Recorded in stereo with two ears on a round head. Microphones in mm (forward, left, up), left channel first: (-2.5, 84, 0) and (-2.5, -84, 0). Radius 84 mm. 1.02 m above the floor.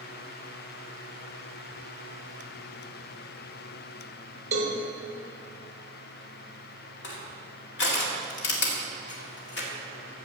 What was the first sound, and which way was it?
A cowbell, 40° right (ahead or behind).